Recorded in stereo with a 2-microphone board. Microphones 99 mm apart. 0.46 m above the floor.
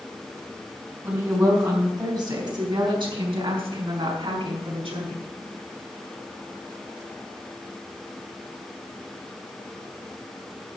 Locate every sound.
1.0 s a woman speaking: 25° right (ahead or behind), 4.5 m; by 5.3 s 75° right (ahead or behind), 5.5 m